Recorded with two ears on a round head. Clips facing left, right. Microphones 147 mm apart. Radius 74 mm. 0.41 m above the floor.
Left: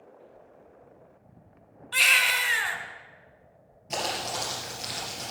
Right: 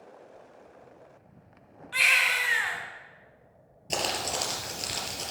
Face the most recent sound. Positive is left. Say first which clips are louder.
# even
turn(degrees=-45)  # may be behind; listen again after turning